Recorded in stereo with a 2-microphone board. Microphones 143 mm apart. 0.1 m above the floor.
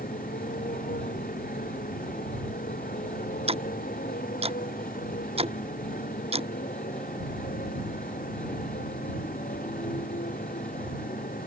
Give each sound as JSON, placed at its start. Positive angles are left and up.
{"t": 0.0, "sound": "a motorcycle", "side_deg": 80}
{"t": 3.5, "sound": "ticking", "side_deg": -45}